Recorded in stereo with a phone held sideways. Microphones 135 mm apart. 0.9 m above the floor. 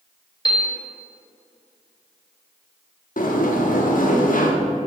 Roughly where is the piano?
Left.